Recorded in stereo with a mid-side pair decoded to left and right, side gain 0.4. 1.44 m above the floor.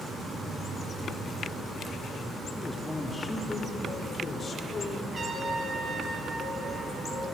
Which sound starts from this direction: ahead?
A man speaking, at 2.5 s.